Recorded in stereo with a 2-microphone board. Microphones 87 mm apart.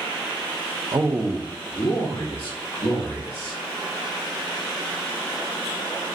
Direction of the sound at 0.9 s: 45° right (ahead or behind).